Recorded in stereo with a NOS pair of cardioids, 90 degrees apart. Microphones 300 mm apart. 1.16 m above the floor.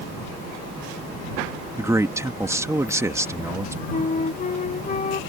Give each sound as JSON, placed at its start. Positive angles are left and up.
{"t": 1.8, "sound": "a man speaking", "azimuth_deg": -10}
{"t": 3.9, "sound": "a flute", "azimuth_deg": 25}